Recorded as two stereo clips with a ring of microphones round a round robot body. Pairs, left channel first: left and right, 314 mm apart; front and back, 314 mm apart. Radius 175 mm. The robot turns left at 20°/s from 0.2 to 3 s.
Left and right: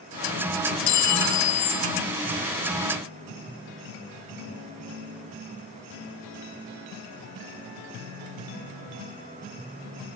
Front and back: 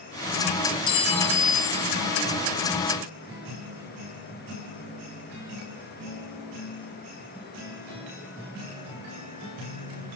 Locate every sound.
0.9 s a clink: 75° left, 0.8 m; by 1.9 s 55° left, 0.8 m